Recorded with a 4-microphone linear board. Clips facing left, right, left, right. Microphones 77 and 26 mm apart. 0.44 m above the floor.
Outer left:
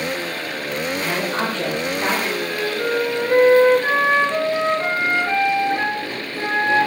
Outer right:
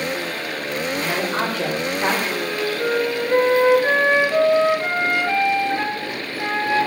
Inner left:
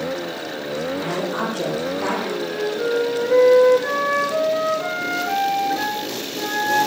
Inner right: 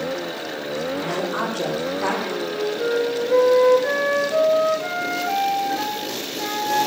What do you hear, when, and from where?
0.9 s a woman speaking: centre (ahead or behind), 7 m
2.3 s a flute: 20° left (ahead or behind), 3 m